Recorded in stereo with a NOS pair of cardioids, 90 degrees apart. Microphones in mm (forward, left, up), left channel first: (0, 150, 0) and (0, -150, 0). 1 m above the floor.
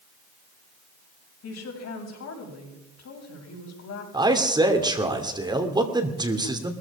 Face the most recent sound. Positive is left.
turn(degrees=-15)